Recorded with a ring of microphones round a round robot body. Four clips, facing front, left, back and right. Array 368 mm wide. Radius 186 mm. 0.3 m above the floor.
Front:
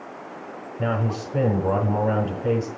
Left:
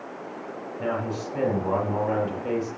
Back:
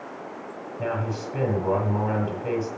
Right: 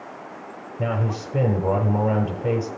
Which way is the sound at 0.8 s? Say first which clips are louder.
Right 2 dB, front 3 dB; 65° right.